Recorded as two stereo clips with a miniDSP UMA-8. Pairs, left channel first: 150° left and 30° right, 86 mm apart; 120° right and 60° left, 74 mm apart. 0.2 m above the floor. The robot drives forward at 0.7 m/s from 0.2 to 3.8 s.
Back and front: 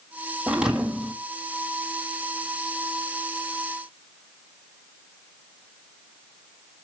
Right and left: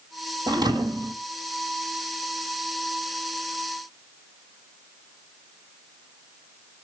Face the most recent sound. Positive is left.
turn(degrees=135)